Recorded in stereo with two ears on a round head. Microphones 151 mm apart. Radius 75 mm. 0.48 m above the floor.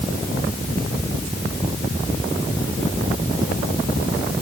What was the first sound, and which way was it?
Only background noise.